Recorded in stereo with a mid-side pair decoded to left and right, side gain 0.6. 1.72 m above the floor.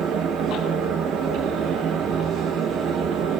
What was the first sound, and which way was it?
A fan, 50° right.